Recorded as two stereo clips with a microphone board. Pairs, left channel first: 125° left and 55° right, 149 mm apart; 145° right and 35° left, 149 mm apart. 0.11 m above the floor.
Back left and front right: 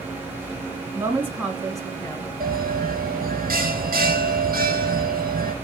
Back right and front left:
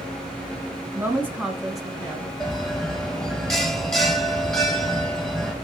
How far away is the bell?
About 0.9 m.